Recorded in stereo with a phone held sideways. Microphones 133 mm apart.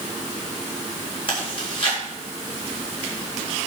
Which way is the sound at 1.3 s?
45° left (ahead or behind).